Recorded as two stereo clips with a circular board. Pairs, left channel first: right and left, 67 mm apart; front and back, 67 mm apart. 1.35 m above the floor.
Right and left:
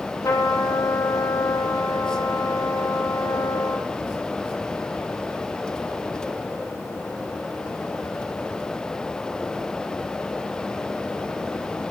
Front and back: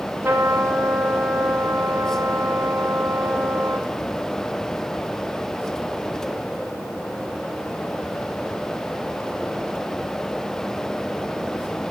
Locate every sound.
0.2 s a trumpet: 125° right, 3 m